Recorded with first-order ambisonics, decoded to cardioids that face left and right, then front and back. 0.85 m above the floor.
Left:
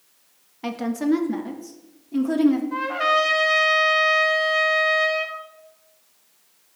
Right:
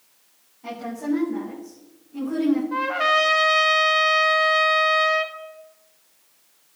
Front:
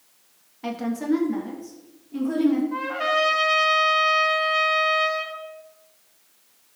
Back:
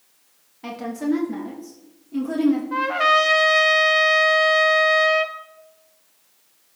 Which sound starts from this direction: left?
A woman speaking, at 0.6 s.